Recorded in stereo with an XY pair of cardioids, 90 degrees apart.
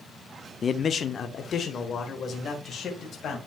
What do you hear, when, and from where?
0.6 s a man speaking: 45° left, 0.6 m; by 3.4 s 60° left, 2.5 m